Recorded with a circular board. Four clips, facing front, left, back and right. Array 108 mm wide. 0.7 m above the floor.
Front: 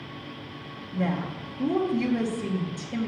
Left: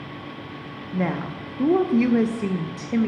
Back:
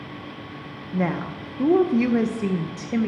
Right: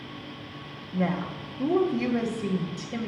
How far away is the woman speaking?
About 0.6 m.